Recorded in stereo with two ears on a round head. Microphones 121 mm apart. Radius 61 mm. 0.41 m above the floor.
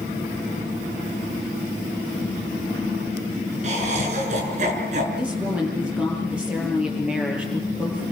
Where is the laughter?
55° right (ahead or behind), 6 m.